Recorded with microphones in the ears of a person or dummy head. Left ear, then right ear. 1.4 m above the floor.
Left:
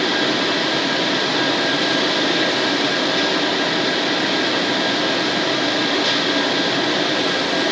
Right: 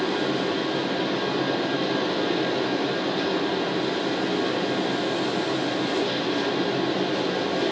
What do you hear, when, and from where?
0.0 s a fan: 60° left (ahead or behind), 1.3 m